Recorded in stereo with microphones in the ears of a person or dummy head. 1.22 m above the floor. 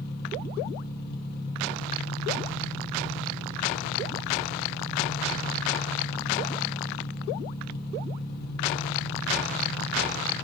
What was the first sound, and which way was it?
An engine running, 65° left (ahead or behind).